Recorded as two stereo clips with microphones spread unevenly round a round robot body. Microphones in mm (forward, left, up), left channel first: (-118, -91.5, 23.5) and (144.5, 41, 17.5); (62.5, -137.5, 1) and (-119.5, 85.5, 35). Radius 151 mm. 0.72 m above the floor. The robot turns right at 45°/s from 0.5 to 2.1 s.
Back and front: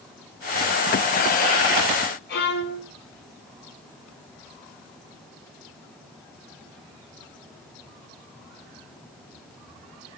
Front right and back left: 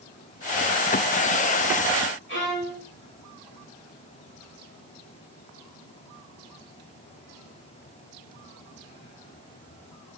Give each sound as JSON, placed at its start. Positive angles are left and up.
{"t": 2.3, "sound": "a violin", "azimuth_deg": -100, "distance_m": 7.0}